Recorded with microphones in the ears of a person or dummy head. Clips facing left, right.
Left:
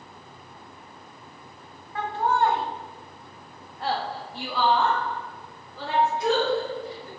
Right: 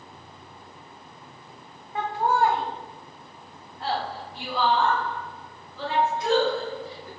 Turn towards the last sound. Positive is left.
turn(degrees=80)